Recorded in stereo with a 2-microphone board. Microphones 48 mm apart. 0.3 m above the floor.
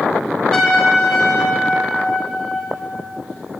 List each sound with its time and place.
0.5 s a trumpet: 5° left (ahead or behind), 2.5 m